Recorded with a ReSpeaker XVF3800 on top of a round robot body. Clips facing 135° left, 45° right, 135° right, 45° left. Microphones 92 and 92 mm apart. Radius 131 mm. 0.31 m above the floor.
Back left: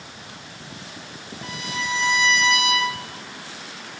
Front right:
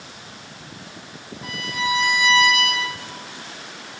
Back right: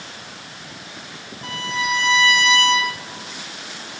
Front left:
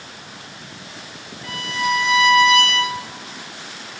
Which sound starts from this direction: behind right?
A violin, at 1.4 s.